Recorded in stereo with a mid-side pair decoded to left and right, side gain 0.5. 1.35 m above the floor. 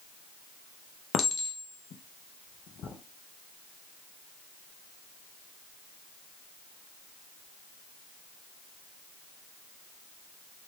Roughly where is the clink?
Ahead left.